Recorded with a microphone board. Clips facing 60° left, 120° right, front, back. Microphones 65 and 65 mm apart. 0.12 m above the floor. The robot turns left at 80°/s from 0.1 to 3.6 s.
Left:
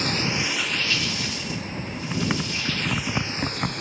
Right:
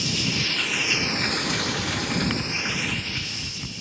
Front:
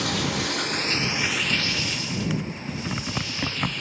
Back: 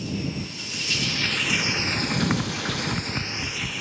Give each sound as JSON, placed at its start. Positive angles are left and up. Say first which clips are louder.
{"t": 0.0, "sound": "running water", "louder": "left 2 dB, front 4 dB", "azimuth_deg": 15}
{"t": 1.7, "sound": "typing on a keyboard", "louder": "right 4 dB, back 3 dB", "azimuth_deg": -175}